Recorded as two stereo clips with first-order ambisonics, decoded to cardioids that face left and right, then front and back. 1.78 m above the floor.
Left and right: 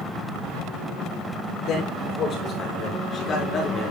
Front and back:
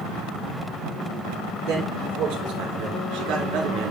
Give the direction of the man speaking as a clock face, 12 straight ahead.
7 o'clock.